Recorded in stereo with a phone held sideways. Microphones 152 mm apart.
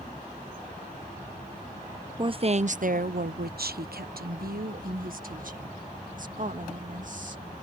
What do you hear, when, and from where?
2.2 s a woman speaking: 30° right (ahead or behind); by 7.4 s 55° right (ahead or behind)